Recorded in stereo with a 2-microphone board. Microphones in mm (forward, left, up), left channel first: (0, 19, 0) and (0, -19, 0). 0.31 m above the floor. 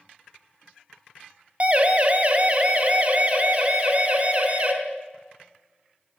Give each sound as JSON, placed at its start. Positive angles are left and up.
{"t": 1.6, "sound": "a siren", "side_deg": -35, "distance_m": 2.5}